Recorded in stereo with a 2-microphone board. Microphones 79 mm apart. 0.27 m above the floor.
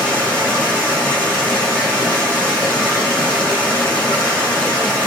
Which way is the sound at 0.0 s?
20° left (ahead or behind).